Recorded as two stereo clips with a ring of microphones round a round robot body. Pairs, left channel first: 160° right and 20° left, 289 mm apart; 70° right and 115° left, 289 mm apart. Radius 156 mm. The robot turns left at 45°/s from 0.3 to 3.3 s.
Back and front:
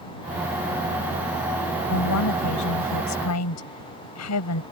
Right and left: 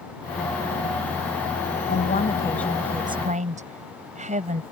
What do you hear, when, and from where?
1.9 s a woman speaking: 120° right; by 4.6 s 175° left